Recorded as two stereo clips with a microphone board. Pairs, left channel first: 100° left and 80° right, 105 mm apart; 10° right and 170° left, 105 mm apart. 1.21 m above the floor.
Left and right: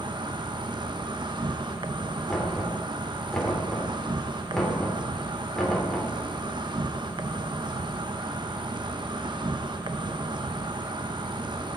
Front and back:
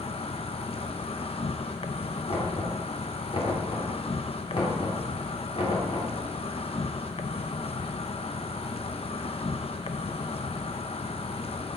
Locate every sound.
0.0 s an insect: 35° right, 0.7 m
2.3 s knocking: 15° left, 3.5 m